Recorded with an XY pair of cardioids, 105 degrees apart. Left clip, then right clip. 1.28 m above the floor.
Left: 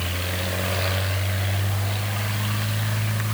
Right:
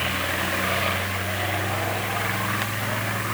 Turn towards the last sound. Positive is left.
No sound to turn to.